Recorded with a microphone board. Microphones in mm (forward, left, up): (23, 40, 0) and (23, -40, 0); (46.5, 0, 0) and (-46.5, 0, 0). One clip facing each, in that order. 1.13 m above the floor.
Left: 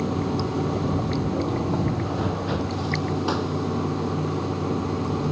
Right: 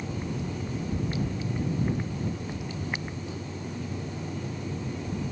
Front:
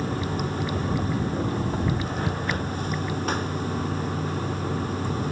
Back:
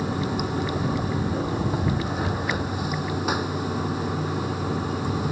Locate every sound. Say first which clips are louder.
0.0 s running water: left 9 dB, back 2 dB; 100° left